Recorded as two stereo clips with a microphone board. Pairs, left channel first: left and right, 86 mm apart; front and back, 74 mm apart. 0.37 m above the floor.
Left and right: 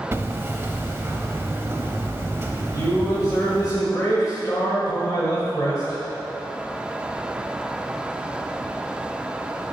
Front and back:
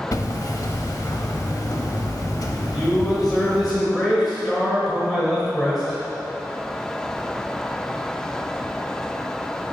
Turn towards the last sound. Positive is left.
turn(degrees=90)